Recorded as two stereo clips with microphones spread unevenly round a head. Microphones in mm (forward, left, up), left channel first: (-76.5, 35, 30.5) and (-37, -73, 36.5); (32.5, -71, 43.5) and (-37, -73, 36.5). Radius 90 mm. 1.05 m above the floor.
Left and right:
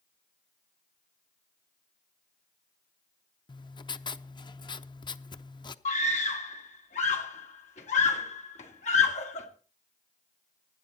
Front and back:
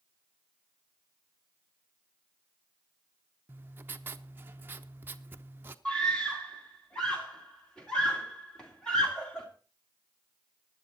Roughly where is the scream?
Left.